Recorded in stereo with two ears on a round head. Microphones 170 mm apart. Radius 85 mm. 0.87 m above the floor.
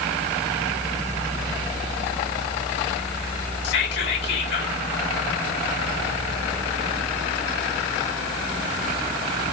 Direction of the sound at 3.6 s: 60° left (ahead or behind).